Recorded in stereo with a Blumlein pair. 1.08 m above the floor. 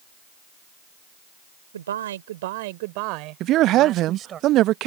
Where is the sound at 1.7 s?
65° right; by 4.4 s 25° right.